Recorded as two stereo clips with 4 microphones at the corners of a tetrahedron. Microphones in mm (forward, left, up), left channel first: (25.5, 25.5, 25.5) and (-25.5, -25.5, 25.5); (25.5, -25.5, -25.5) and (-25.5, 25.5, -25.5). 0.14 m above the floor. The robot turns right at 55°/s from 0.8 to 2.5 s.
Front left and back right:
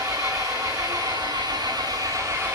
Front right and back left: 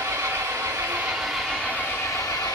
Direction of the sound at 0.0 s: 165° right.